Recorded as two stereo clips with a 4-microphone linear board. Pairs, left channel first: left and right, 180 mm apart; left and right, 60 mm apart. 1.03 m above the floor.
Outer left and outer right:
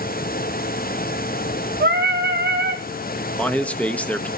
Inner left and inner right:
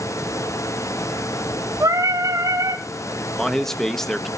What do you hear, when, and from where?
1.8 s singing: 70° right (ahead or behind), 3 m
3.4 s a man speaking: 5° left (ahead or behind), 1.2 m